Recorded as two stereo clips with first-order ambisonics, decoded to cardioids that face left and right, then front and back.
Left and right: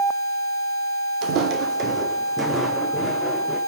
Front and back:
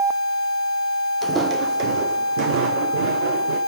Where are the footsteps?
110° right, 1.1 m; by 3.6 s 175° left, 3 m.